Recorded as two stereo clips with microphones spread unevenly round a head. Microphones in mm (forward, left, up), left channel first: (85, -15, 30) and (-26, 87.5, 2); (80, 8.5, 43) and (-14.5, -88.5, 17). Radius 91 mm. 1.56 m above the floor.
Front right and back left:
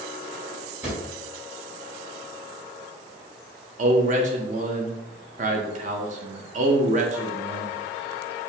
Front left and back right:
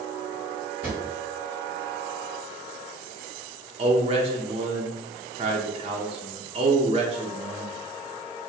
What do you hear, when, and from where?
0.8 s a drawer: 50° left, 1.8 m
3.8 s a man speaking: straight behind, 0.6 m